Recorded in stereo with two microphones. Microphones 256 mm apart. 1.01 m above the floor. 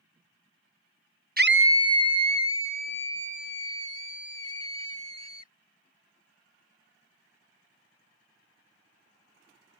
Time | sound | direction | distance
1.4 | a scream | 35° right (ahead or behind) | ?